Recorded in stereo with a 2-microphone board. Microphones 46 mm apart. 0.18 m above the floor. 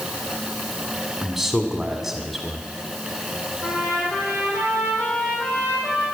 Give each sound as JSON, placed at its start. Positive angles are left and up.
{"t": 1.2, "sound": "a man speaking", "side_deg": -10, "distance_m": 1.6}
{"t": 3.6, "sound": "a trumpet", "side_deg": 65, "distance_m": 6.0}